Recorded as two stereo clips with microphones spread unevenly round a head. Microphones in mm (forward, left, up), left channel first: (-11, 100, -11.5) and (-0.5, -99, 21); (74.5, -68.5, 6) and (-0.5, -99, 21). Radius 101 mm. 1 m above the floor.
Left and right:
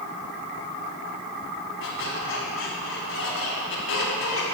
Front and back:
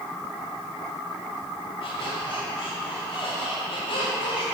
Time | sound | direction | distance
1.8 | a squeak | 60° left | 1.9 m